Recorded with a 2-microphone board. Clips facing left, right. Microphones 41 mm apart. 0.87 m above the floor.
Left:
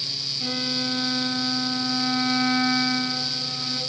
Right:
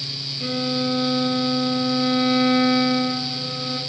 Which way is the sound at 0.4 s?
25° right (ahead or behind).